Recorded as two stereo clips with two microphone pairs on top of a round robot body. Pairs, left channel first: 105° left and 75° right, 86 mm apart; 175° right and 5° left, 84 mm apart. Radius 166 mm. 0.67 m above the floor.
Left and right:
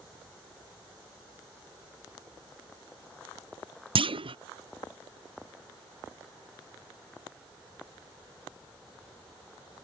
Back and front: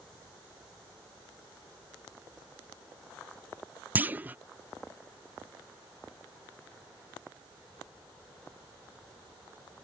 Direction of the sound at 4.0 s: 65° right.